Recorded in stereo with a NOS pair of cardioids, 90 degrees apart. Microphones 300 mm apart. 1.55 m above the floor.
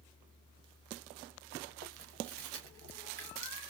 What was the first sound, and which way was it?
Chewing, 50° right.